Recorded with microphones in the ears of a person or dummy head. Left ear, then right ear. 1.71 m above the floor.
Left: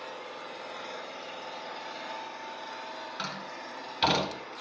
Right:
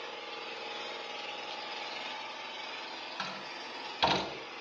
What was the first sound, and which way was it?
An engine running, 45° right (ahead or behind).